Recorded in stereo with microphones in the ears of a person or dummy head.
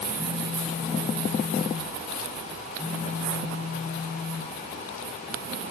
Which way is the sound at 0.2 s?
10° right (ahead or behind).